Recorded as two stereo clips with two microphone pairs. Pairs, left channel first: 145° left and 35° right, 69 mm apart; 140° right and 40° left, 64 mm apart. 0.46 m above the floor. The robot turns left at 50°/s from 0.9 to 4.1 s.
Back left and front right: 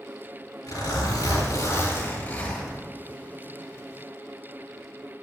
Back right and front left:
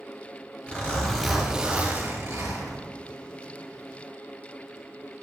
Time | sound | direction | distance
0.7 | a zipper | 155° left | 5.5 m